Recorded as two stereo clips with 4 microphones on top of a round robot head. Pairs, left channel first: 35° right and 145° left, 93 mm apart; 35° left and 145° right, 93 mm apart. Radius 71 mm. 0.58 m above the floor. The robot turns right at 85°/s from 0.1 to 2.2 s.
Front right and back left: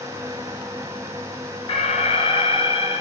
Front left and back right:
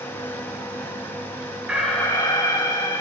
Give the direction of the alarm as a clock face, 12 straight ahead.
2 o'clock.